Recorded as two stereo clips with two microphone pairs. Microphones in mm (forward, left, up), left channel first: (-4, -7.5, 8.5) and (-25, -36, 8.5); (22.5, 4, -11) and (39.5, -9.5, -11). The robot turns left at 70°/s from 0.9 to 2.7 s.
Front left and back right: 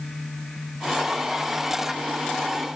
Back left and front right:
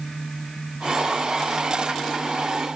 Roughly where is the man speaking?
No man speaking in this recording.